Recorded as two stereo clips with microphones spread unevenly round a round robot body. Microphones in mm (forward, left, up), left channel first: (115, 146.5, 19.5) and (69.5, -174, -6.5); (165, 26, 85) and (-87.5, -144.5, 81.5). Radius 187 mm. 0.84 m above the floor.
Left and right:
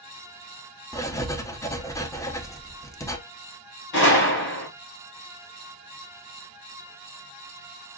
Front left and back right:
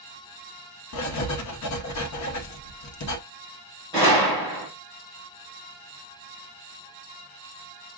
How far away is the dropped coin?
No dropped coin in this recording.